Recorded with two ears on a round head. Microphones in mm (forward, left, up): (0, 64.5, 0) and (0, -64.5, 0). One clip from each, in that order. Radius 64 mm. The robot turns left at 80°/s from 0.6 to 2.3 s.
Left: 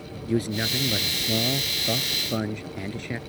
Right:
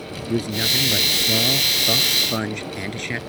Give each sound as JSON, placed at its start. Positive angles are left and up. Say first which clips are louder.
{"t": 0.3, "sound": "a man speaking", "louder": "right 5 dB", "azimuth_deg": 10}